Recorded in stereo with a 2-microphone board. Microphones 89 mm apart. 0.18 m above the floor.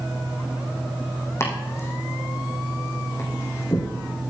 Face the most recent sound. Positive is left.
turn(degrees=30)  # may be behind; listen again after turning